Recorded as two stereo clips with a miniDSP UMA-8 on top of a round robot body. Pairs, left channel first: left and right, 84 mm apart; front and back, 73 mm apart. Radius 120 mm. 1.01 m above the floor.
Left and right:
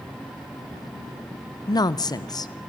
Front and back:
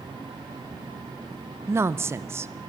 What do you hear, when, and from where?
1.7 s a woman speaking: 125° left, 0.8 m